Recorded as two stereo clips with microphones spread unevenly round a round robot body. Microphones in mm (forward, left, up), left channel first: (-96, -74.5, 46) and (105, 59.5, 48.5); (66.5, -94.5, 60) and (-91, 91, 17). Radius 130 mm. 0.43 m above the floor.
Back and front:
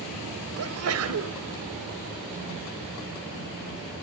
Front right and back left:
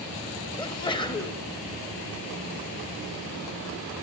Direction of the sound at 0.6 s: 25° left.